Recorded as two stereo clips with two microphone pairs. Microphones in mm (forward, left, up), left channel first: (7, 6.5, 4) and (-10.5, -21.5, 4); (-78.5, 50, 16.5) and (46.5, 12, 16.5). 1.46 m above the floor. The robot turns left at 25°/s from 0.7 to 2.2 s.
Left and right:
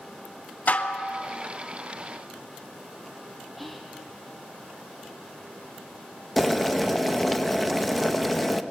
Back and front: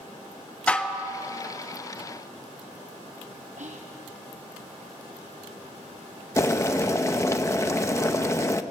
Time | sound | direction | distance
0.7 | dishes clattering | 85° left | 1.2 m
3.6 | whispering | 30° right | 0.9 m
6.4 | boiling | 140° left | 0.7 m